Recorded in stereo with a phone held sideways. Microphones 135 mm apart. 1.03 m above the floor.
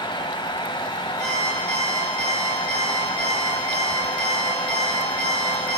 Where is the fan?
40° left (ahead or behind), 1.3 m.